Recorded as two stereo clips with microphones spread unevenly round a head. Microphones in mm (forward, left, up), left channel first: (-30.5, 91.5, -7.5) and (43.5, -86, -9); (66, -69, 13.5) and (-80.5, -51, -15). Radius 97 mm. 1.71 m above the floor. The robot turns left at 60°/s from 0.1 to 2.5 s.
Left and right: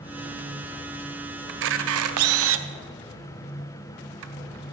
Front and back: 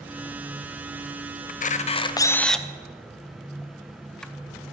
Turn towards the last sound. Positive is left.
turn(degrees=-90)